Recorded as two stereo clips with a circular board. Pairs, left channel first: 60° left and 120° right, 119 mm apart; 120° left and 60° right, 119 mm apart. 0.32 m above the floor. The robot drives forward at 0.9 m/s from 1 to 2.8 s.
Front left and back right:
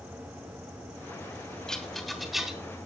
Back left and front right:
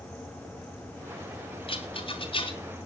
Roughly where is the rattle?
Behind left.